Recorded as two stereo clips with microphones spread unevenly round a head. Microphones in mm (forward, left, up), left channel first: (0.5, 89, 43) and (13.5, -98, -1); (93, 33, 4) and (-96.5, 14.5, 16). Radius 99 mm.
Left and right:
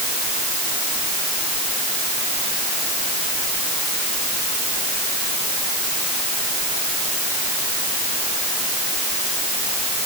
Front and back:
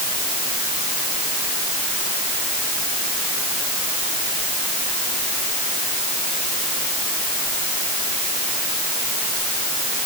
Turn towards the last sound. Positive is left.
No sound to turn to.